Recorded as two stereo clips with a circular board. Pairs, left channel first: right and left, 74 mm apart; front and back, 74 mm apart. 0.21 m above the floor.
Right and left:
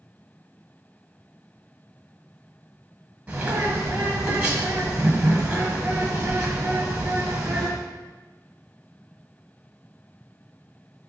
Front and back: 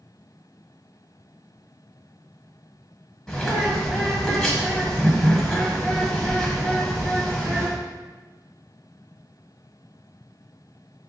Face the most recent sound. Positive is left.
turn(degrees=70)